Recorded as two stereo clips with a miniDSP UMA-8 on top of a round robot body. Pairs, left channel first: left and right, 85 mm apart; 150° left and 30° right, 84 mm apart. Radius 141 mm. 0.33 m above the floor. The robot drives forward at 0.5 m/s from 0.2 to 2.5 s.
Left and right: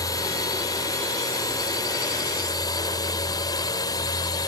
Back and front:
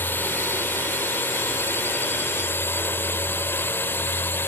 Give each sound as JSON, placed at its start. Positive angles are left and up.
{"t": 0.0, "sound": "a drone", "azimuth_deg": 95}